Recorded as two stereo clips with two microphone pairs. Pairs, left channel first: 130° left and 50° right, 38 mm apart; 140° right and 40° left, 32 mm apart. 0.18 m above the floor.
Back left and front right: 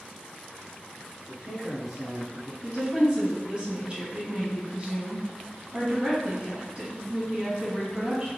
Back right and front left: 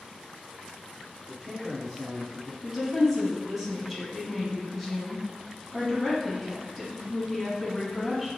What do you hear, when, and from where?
1.3 s a man speaking: 65° right, 1.4 m; by 2.5 s 155° left, 1.3 m
2.6 s a woman speaking: 45° right, 1.2 m